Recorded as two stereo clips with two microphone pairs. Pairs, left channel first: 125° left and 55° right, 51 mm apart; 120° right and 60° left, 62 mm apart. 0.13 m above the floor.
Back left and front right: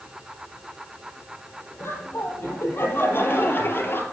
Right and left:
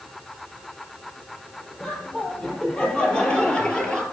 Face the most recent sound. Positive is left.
turn(degrees=165)